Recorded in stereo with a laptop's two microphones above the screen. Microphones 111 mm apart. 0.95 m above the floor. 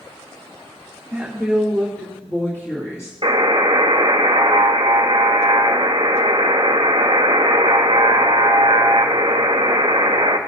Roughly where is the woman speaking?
Centre.